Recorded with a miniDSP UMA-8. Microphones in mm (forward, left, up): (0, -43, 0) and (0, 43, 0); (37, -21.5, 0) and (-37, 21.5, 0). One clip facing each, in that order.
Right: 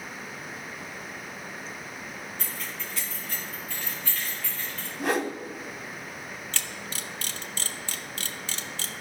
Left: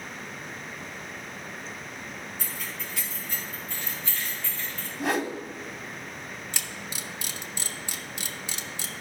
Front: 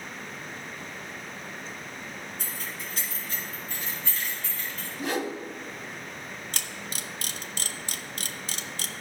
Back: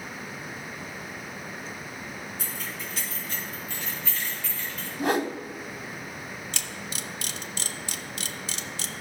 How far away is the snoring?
I don't hear snoring.